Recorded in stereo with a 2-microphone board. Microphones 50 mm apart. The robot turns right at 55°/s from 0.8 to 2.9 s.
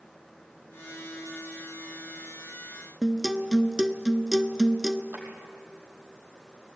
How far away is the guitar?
About 0.8 m.